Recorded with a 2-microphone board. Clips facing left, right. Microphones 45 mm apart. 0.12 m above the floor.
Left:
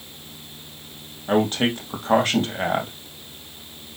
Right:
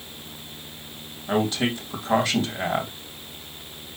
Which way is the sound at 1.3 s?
45° left (ahead or behind).